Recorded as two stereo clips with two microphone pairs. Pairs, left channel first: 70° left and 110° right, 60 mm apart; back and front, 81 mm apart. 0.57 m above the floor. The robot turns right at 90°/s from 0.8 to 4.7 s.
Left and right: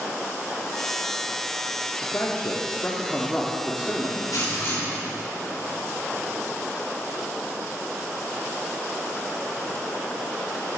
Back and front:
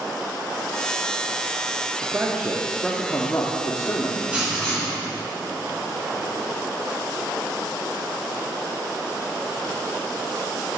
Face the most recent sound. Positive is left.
turn(degrees=110)